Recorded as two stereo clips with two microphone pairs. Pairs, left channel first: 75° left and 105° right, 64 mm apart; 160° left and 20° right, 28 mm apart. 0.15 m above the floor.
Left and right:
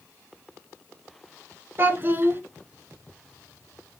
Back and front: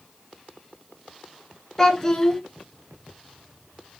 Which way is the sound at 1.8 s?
140° right.